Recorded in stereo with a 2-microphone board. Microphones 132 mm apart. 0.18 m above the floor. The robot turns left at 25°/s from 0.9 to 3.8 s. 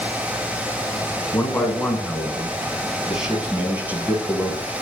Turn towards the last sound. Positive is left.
turn(degrees=-25)